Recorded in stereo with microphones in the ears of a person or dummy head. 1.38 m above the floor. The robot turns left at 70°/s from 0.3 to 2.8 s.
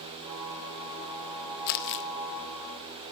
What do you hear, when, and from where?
1.7 s crumpling: 45° left (ahead or behind), 1.2 m; by 2.0 s 55° left (ahead or behind), 1.2 m